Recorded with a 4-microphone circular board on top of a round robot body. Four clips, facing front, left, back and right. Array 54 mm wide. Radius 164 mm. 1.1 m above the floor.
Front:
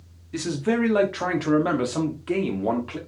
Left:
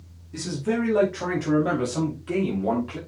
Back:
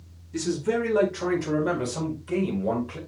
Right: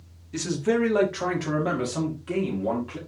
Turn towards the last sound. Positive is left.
turn(degrees=5)